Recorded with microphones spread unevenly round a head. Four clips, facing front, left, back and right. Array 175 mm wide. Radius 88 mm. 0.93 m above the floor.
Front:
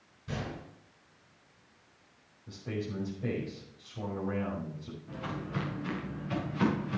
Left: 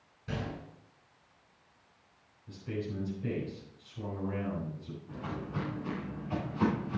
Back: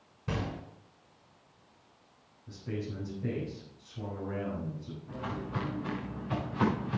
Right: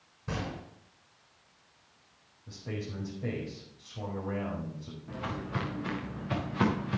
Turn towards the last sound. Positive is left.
turn(degrees=-80)